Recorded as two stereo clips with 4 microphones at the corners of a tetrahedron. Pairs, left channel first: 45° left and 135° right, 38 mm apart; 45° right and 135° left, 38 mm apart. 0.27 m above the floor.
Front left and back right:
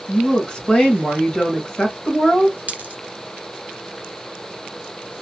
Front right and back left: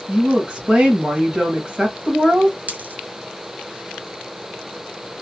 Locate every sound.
0.1 s a woman speaking: 85° left, 1.3 m
2.7 s a dropped coin: straight behind, 1.0 m